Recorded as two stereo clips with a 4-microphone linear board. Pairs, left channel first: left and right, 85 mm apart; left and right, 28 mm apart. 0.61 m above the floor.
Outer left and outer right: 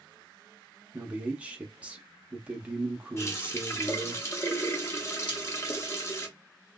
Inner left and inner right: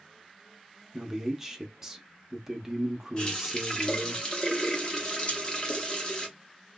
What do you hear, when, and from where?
0.9 s a man speaking: 15° right (ahead or behind), 0.5 m
3.2 s a running tap: 30° left (ahead or behind), 0.7 m
5.3 s cutlery clinking: 60° left (ahead or behind), 0.6 m